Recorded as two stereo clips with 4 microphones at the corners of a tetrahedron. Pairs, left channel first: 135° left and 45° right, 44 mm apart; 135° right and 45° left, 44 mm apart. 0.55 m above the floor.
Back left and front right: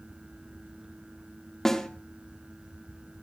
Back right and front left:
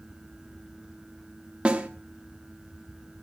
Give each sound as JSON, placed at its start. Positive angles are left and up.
{"t": 1.6, "sound": "a snare drum", "azimuth_deg": 70, "distance_m": 1.3}